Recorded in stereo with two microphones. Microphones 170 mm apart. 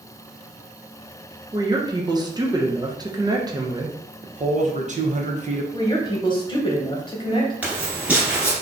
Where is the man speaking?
45° right (ahead or behind), 0.6 m.